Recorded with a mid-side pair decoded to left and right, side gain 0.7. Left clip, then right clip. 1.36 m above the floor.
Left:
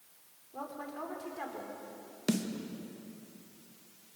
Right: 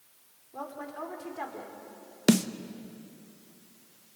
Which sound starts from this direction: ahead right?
A snare drum, at 2.3 s.